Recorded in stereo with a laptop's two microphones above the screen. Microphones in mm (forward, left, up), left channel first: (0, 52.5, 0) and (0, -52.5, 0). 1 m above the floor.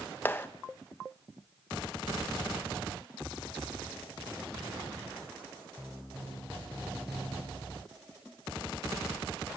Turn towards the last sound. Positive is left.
turn(degrees=20)  # may be behind; listen again after turning